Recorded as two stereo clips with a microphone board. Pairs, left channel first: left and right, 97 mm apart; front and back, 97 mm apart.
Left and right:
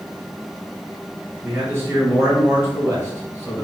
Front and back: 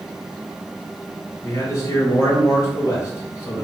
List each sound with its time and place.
1.4 s a man speaking: 40° right, 1.5 m